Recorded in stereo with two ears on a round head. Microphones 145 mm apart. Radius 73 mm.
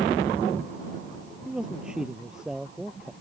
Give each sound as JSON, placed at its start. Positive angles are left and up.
{"t": 1.4, "sound": "a man speaking", "side_deg": -5}